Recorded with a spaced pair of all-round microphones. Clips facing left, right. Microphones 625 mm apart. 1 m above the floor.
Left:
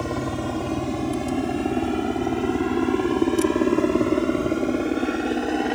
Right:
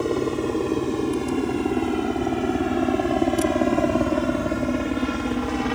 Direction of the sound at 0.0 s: 20° left (ahead or behind).